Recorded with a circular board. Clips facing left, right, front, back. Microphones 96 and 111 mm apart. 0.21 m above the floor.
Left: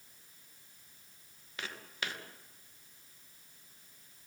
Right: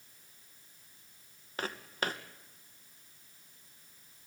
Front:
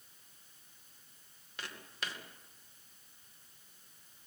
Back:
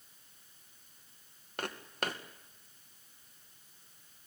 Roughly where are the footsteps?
Behind right.